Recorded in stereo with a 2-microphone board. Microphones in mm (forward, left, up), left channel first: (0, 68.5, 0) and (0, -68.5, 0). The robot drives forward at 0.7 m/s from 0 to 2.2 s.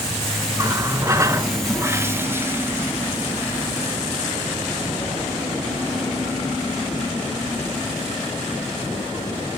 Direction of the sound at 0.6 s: 25° right (ahead or behind).